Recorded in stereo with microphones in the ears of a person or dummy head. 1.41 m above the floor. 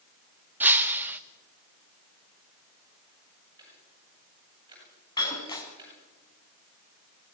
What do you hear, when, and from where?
0.6 s breaking glass: 5° right (ahead or behind), 0.8 m
3.6 s ticking: 20° right (ahead or behind), 9 m
5.2 s breaking glass: 25° left (ahead or behind), 5 m